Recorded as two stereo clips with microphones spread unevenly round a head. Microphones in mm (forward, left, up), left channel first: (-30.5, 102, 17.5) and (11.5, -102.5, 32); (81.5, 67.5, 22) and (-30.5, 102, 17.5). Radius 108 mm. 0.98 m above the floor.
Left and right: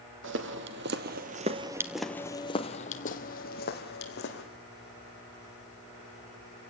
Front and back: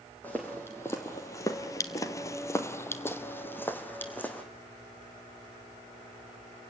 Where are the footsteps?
100° right, 1.9 m; by 4.4 s 60° left, 3 m.